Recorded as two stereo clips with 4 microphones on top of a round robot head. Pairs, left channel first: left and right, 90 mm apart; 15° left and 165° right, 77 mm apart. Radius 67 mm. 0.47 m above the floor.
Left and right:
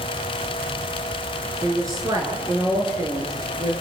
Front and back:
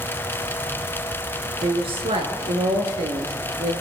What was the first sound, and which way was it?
A woman speaking, 150° right.